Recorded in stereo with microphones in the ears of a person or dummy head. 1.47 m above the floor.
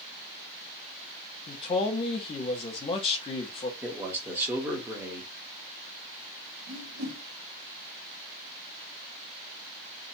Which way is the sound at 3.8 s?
10° right (ahead or behind).